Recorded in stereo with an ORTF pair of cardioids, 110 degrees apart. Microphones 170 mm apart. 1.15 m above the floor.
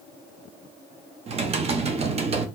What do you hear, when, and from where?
1.3 s typing on a keyboard: 40° right, 0.6 m